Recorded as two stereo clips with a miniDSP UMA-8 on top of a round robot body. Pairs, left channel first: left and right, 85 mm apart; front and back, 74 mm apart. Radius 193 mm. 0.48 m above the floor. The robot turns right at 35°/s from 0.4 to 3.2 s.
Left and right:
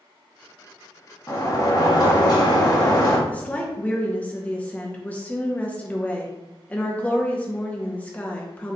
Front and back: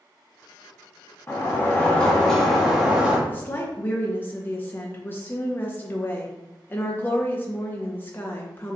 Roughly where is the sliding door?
Ahead left.